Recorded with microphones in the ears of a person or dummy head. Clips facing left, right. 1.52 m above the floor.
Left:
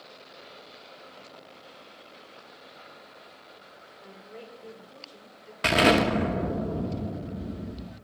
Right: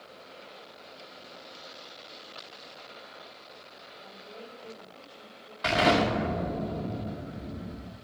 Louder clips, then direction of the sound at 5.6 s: Left 3 dB; 35° left (ahead or behind).